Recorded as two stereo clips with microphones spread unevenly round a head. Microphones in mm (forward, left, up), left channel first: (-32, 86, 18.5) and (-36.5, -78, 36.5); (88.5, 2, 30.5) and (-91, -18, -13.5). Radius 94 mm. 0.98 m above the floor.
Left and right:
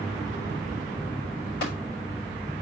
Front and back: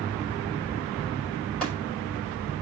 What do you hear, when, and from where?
1.6 s tapping: 95° left, 6.5 m